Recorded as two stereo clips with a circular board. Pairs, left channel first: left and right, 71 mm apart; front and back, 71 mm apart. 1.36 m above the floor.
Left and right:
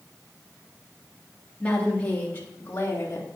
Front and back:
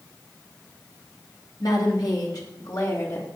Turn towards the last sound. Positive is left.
turn(degrees=40)